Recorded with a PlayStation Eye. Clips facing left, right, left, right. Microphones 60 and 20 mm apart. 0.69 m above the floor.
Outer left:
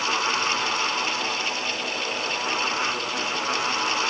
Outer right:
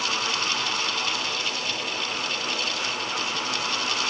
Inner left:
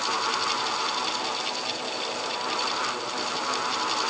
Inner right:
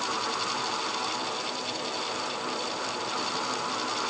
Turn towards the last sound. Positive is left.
No sound to turn to.